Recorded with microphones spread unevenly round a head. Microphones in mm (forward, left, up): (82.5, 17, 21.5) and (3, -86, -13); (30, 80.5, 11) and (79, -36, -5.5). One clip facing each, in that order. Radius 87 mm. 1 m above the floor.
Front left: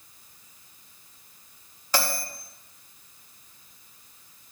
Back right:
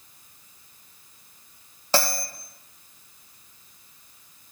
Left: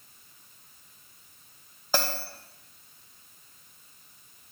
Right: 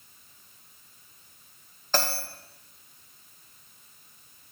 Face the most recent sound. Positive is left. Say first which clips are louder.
# back right 3 dB, even
turn(degrees=-160)